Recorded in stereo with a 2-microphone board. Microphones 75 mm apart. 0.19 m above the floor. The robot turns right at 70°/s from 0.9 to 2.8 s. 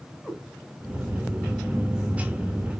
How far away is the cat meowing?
About 3.5 m.